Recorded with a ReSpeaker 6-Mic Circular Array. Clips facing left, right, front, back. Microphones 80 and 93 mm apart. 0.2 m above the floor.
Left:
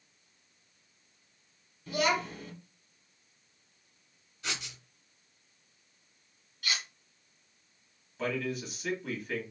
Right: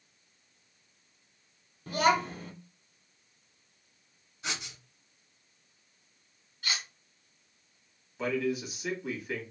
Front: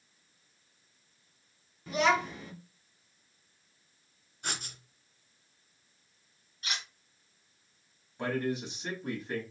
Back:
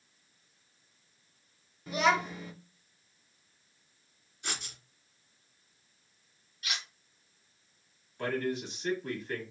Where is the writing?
25° right, 1.6 m.